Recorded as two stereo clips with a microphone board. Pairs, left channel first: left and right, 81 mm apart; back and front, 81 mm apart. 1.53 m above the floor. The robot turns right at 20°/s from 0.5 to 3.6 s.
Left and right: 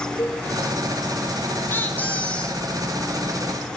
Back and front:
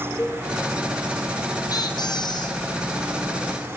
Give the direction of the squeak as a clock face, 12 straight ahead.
7 o'clock.